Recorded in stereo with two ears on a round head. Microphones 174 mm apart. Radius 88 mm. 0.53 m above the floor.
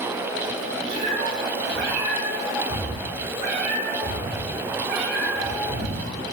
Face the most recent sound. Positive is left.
turn(degrees=-60)  # may be behind; listen again after turning